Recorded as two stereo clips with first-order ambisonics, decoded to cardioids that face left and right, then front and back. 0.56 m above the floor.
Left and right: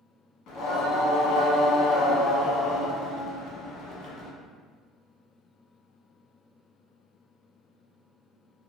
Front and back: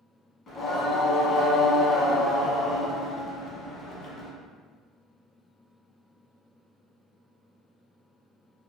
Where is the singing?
60° left, 0.8 m.